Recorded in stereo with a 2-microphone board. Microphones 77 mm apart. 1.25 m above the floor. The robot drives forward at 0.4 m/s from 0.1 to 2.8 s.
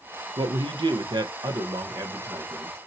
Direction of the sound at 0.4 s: 80° right.